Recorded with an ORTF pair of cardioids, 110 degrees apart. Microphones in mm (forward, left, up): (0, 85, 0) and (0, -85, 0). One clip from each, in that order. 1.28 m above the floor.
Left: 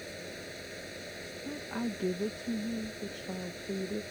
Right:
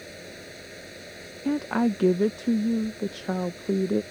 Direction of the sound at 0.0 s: 5° right.